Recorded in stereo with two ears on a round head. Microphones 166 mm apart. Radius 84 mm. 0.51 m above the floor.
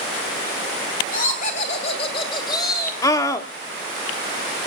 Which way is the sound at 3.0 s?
20° left (ahead or behind).